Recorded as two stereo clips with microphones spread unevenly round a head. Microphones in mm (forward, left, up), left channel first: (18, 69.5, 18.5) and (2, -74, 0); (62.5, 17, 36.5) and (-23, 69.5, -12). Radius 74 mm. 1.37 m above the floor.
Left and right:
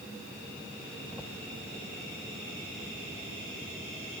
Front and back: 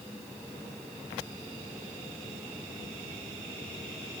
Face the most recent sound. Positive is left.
No sound to turn to.